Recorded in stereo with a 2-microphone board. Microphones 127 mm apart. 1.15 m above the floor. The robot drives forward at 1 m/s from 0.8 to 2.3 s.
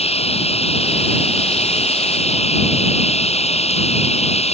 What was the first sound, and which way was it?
Running water, 55° left (ahead or behind).